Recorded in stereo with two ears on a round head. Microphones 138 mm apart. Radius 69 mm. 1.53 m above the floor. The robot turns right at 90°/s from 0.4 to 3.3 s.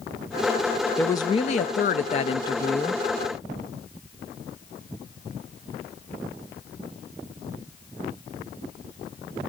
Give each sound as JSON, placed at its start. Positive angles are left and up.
{"t": 1.0, "sound": "a woman speaking", "azimuth_deg": 10, "distance_m": 0.5}